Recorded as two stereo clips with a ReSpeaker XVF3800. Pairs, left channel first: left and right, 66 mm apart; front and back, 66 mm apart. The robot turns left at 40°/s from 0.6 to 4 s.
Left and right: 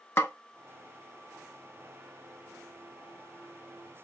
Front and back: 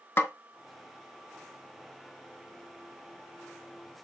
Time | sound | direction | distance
0.2 | a snare drum | 45° left | 0.6 m